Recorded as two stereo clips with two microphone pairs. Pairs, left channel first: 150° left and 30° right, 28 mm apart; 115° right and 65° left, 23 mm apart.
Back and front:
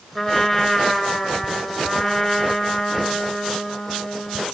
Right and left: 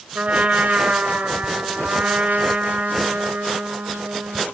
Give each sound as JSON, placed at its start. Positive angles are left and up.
{"t": 0.1, "sound": "a trumpet", "azimuth_deg": 70, "distance_m": 4.0}